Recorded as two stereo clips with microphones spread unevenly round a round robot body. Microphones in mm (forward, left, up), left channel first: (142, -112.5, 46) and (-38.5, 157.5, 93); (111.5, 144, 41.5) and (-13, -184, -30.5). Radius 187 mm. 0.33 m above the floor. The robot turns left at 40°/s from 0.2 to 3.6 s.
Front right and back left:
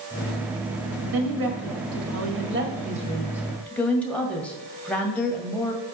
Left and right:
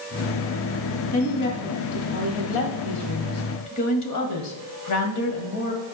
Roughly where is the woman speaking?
Behind left.